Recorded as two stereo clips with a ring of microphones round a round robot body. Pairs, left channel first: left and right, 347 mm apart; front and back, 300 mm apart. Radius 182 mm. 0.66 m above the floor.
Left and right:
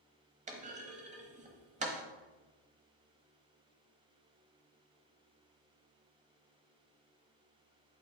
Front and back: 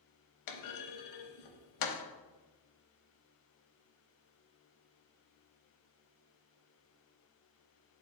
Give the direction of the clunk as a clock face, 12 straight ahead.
1 o'clock.